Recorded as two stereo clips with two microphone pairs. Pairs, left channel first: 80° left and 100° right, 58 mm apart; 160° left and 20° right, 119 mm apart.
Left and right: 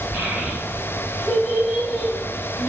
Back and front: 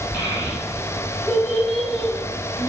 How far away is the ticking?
No ticking in this recording.